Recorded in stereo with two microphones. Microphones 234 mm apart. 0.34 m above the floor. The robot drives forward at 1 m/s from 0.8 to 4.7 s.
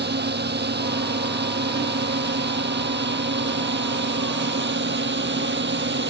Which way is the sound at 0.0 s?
45° right (ahead or behind).